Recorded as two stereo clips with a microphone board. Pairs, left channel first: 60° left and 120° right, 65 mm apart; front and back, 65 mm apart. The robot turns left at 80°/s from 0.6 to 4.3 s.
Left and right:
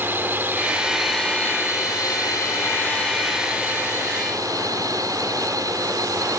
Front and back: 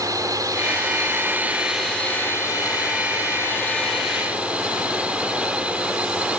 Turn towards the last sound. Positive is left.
turn(degrees=-110)